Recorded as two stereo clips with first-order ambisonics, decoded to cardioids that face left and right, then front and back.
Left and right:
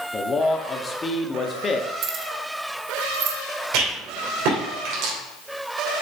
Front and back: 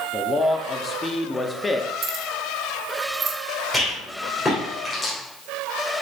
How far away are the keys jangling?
About 0.9 m.